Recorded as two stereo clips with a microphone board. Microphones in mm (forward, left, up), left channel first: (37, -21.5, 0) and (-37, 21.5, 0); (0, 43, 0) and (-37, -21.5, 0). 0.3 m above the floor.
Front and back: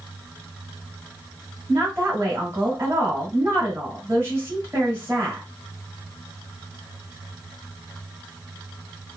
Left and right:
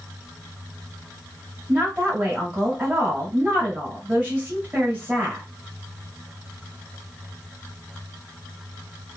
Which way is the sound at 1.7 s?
175° right.